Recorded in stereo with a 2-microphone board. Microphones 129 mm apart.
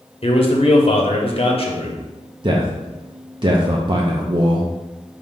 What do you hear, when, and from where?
0.2 s a man speaking: 45° left (ahead or behind), 0.9 m
2.4 s a man speaking: 40° right (ahead or behind), 0.5 m